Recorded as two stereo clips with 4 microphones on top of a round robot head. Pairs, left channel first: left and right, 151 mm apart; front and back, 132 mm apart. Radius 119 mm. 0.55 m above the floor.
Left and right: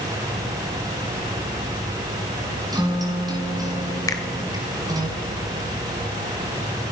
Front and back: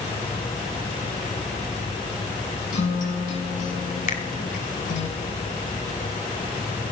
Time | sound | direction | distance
2.7 | a guitar | 25° right | 4.5 m
4.1 | a finger snap | 20° left | 2.5 m